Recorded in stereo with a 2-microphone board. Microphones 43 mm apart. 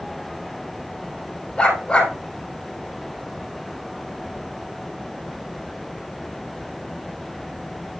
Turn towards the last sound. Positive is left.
turn(degrees=25)  # may be behind; listen again after turning